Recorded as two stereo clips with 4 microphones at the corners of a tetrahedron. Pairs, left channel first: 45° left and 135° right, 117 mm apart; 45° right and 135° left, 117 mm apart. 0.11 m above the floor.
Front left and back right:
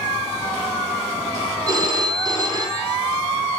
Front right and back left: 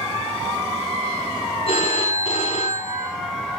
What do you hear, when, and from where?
1.7 s a phone ringing: 75° right, 3 m